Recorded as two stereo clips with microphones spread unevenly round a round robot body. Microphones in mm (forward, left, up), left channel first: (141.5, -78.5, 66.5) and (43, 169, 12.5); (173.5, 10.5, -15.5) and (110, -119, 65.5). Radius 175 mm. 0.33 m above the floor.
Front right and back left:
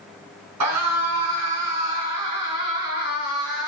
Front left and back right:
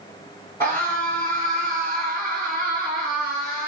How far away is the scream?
About 3.5 m.